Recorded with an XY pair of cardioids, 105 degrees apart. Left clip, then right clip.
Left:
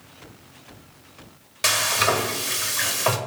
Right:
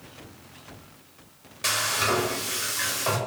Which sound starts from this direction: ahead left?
Frying, at 1.6 s.